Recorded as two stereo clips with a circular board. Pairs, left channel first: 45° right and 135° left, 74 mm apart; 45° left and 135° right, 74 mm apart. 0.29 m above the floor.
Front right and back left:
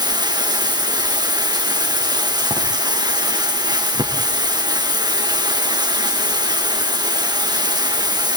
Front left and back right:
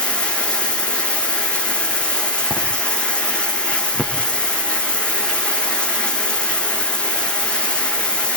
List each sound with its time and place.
0.0 s running water: 120° left, 4 m